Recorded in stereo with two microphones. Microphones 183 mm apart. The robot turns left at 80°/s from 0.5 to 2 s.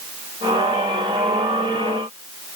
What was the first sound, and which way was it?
Only background noise.